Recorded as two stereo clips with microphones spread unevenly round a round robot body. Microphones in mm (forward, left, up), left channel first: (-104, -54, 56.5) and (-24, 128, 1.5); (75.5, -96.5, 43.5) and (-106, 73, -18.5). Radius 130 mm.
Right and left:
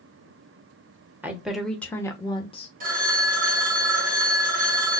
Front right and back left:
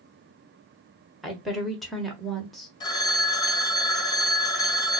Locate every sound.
1.2 s a woman speaking: 80° left, 1.2 m; by 2.7 s 170° right, 1.2 m
2.8 s a phone ringing: 40° left, 1.2 m